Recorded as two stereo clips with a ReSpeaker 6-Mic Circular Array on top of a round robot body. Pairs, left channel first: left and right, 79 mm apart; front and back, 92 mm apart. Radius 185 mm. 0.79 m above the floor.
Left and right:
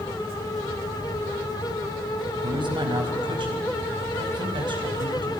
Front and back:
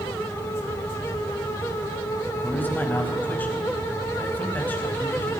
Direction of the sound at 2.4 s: 70° right.